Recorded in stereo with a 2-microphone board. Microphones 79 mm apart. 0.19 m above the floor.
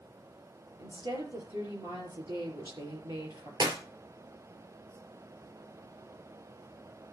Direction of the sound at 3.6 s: 55° right (ahead or behind).